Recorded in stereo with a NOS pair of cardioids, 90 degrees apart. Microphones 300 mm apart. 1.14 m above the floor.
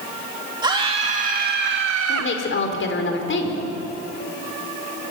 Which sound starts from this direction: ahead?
A scream, at 0.6 s.